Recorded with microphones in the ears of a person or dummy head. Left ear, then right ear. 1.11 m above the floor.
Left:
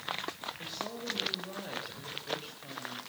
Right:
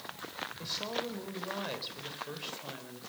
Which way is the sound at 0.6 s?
35° right (ahead or behind).